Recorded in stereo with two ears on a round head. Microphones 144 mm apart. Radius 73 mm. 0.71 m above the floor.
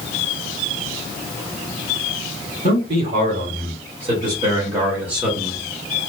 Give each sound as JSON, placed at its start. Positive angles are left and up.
{"t": 2.6, "sound": "a man speaking", "side_deg": -55, "distance_m": 2.0}